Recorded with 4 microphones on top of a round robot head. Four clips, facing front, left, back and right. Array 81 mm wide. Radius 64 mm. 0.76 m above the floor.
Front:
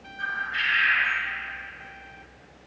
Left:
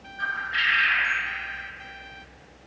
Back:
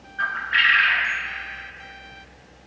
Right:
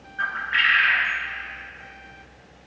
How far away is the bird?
About 0.8 m.